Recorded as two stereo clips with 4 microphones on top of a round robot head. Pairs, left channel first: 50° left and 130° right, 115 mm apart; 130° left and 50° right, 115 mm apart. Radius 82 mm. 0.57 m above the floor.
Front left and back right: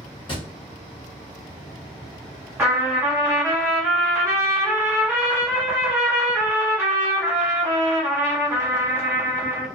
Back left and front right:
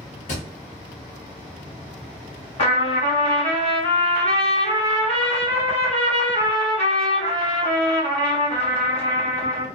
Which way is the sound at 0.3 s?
105° left.